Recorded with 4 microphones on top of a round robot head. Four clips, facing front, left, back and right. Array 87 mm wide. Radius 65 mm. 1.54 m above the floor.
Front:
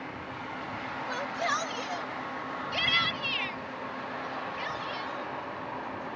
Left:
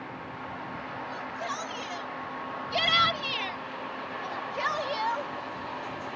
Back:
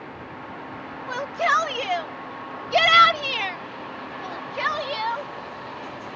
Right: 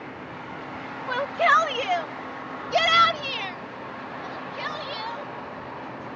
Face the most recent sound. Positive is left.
turn(degrees=145)